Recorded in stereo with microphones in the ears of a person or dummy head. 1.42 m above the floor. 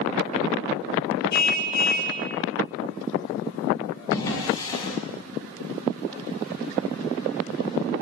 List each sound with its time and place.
1.3 s a car horn: 60° left (ahead or behind), 3.5 m
4.1 s a drawer: 20° left (ahead or behind), 6.5 m